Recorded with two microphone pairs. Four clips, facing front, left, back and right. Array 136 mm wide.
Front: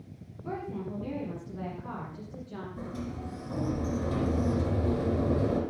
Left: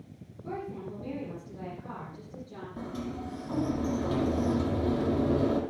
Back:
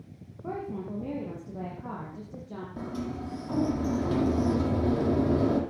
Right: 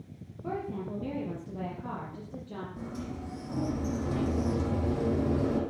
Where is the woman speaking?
145° right, 6 m.